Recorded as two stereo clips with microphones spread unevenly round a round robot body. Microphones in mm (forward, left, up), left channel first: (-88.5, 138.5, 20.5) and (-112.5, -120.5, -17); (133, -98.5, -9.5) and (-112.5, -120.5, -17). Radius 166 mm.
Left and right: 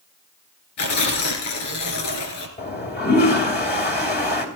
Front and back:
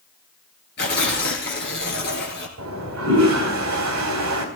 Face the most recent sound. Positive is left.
turn(degrees=135)